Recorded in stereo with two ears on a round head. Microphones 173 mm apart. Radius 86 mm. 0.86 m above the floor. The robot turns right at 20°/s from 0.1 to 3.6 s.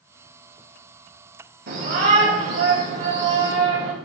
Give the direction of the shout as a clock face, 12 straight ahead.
4 o'clock.